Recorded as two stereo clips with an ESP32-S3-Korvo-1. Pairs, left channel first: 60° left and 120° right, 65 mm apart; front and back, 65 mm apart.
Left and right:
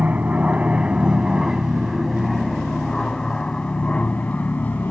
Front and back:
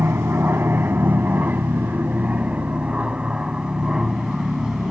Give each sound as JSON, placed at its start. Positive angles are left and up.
{"t": 0.0, "sound": "an aircraft", "azimuth_deg": -170}